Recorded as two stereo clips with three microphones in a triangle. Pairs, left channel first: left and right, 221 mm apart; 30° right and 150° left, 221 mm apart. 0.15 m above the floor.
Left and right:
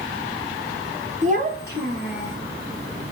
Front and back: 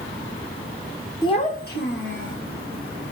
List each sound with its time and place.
1.2 s a child speaking: 85° right, 0.8 m; by 2.4 s 55° right, 2.0 m